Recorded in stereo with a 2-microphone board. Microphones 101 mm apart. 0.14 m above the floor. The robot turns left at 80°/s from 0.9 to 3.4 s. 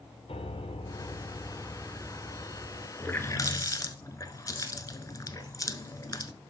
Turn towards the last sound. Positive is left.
turn(degrees=35)  # may be behind; listen again after turning